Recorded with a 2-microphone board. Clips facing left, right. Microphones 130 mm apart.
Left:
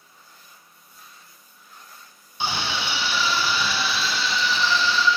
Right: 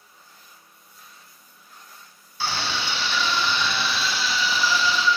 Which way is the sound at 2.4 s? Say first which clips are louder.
Left 1 dB; 20° left (ahead or behind).